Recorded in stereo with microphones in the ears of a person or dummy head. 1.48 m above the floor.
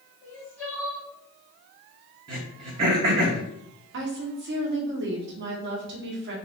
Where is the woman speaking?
70° right (ahead or behind), 1.2 m.